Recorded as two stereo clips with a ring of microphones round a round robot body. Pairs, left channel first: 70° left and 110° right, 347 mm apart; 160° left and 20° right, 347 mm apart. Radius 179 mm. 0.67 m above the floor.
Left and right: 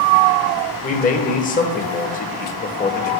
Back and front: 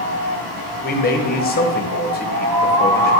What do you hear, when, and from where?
0.8 s a man speaking: 115° left, 0.9 m